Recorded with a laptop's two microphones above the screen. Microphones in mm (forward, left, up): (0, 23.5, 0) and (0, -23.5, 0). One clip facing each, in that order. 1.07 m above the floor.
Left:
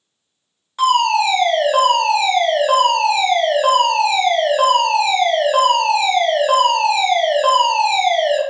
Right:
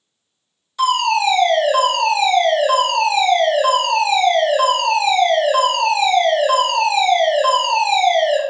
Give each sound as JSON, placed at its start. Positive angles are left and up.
{"t": 0.8, "sound": "a fire alarm", "side_deg": 40, "distance_m": 3.5}